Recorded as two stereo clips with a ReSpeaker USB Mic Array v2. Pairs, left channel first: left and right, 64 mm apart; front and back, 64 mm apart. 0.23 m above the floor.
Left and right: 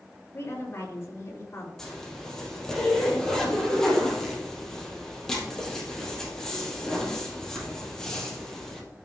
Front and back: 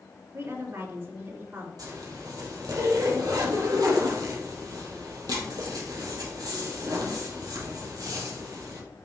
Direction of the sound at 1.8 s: 170° left.